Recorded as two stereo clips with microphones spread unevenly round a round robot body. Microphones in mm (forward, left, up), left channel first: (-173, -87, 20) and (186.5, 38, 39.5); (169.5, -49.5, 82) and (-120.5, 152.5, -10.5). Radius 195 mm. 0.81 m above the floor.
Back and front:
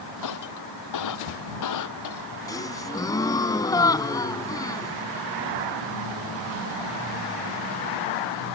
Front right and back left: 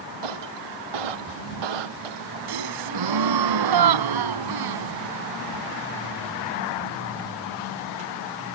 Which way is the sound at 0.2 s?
155° left.